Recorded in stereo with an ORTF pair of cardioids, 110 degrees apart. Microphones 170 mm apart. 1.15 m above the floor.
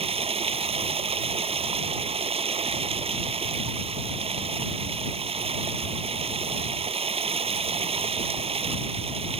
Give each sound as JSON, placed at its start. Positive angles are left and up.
{"t": 0.0, "sound": "running water", "azimuth_deg": -35}